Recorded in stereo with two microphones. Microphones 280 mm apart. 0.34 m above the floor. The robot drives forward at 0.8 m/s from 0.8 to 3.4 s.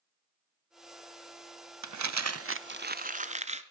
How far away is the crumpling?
About 0.5 m.